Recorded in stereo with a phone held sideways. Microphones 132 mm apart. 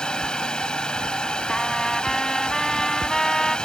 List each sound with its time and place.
0.0 s a fan: 5° left (ahead or behind)
1.5 s a trumpet: 5° left (ahead or behind)